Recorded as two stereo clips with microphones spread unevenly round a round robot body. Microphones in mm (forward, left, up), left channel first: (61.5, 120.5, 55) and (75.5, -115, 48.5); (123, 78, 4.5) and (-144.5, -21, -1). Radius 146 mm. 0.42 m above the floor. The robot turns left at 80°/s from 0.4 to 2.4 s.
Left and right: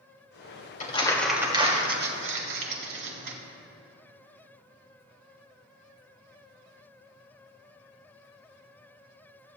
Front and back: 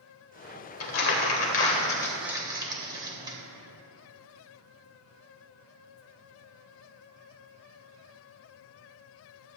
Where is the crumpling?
40° left, 1.7 m; by 3.4 s 85° right, 1.7 m.